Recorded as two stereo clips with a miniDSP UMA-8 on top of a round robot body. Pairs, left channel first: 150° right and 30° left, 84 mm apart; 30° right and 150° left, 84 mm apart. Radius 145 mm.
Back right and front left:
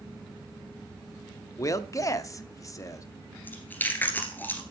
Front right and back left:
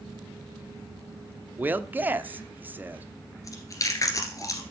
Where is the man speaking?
155° right, 1.2 m.